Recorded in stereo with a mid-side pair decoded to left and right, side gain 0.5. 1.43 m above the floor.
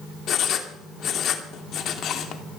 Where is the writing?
55° left, 2.5 m.